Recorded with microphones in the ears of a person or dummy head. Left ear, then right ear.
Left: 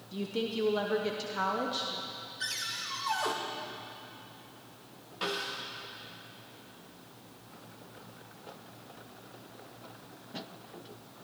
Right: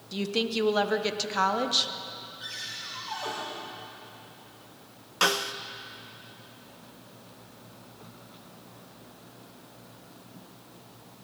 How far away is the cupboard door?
About 2 m.